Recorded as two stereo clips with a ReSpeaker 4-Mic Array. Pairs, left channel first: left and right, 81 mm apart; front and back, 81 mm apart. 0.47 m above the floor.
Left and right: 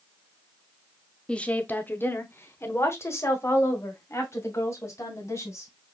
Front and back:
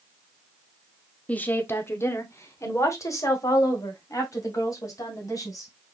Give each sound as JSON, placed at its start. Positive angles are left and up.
{"t": 1.3, "sound": "a woman speaking", "azimuth_deg": 35, "distance_m": 0.7}